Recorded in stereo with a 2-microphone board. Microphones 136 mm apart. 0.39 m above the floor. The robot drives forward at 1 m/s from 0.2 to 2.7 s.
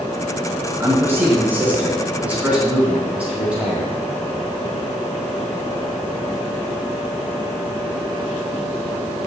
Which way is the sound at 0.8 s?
20° right (ahead or behind).